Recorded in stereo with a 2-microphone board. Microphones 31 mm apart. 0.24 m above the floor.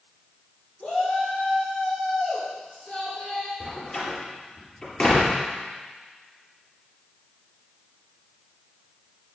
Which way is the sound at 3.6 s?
35° left (ahead or behind).